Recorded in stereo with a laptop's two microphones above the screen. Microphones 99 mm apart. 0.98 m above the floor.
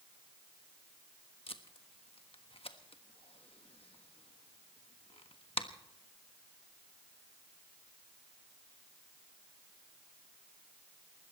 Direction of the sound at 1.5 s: 70° left (ahead or behind).